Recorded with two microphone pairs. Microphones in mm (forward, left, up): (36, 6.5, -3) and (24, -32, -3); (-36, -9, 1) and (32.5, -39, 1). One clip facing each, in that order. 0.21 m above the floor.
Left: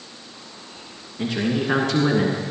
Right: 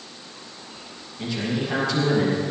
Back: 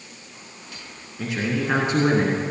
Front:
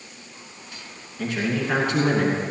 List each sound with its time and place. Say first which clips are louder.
1.2 s a man speaking: left 4 dB, even; 70° left, 2 m; by 2.4 s 100° left, 2 m